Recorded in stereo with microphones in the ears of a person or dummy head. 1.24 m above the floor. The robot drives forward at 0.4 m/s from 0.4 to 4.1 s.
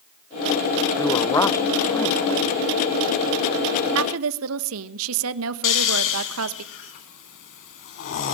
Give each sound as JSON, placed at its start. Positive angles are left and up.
{"t": 1.0, "sound": "a man speaking", "side_deg": 15, "distance_m": 0.8}
{"t": 4.0, "sound": "a woman speaking", "side_deg": -80, "distance_m": 1.2}
{"t": 5.6, "sound": "snoring", "side_deg": 55, "distance_m": 1.8}